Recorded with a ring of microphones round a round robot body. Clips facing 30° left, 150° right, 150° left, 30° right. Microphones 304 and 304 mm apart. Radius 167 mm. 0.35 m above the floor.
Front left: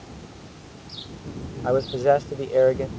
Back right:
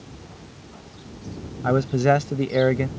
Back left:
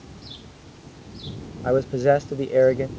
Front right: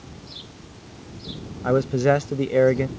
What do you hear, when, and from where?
1.6 s a man speaking: 105° right